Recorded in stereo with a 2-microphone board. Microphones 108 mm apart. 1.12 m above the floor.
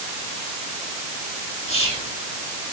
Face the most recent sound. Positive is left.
turn(degrees=80)